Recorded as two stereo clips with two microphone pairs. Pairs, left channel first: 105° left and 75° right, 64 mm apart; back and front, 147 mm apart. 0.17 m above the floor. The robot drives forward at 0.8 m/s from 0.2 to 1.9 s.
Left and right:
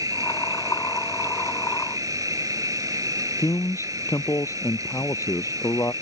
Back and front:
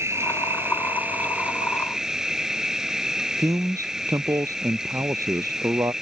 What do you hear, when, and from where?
0.0 s an insect: 70° right; by 6.0 s 85° right
3.4 s a man speaking: 70° left